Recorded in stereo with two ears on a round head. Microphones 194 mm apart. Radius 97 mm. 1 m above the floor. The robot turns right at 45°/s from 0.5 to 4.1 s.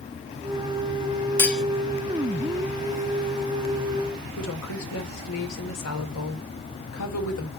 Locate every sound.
1.4 s cutlery clinking: 10° left (ahead or behind), 0.9 m; by 1.6 s centre (ahead or behind), 0.9 m
4.4 s a woman speaking: 85° left, 3.5 m